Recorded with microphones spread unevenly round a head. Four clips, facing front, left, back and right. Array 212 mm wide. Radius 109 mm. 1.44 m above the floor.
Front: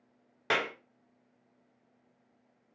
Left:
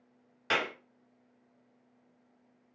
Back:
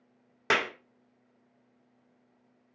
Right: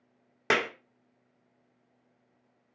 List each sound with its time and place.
0.5 s a clap: 100° right, 0.6 m